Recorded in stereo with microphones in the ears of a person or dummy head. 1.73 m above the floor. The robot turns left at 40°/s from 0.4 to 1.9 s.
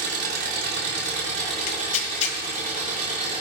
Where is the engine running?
75° right, 4 m; by 3.4 s 135° right, 4 m.